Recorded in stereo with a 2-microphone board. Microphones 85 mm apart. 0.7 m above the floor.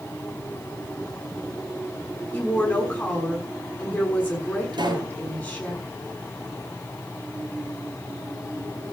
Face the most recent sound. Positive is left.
turn(degrees=-60)  # may be behind; listen again after turning